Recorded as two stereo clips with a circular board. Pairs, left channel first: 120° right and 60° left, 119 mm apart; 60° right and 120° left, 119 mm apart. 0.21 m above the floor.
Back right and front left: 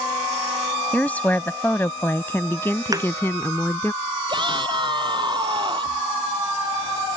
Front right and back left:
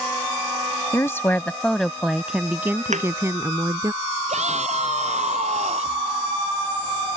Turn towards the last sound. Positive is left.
turn(degrees=110)